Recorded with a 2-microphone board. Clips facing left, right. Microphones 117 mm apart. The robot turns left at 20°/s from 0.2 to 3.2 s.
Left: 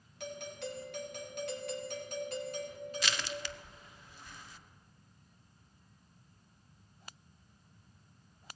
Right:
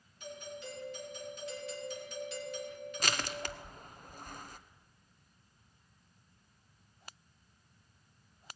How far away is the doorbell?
About 2.5 m.